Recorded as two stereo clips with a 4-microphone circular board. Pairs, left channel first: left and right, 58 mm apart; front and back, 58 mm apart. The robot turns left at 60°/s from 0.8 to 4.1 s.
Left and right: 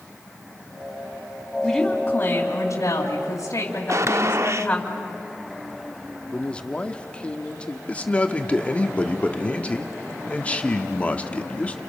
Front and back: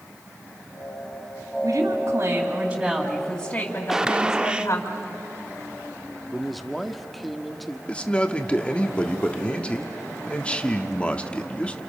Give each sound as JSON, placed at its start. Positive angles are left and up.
{"t": 1.6, "sound": "a woman speaking", "azimuth_deg": 165, "distance_m": 3.0}
{"t": 3.9, "sound": "a gunshot", "azimuth_deg": -100, "distance_m": 0.5}
{"t": 6.3, "sound": "a man speaking", "azimuth_deg": 90, "distance_m": 1.0}
{"t": 7.9, "sound": "a man speaking", "azimuth_deg": 50, "distance_m": 1.1}